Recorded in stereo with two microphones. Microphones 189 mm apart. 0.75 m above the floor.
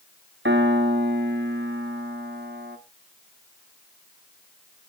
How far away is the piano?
About 1.4 m.